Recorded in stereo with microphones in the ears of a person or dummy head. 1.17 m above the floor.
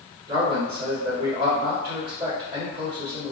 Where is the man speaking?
50° right (ahead or behind), 1.5 m.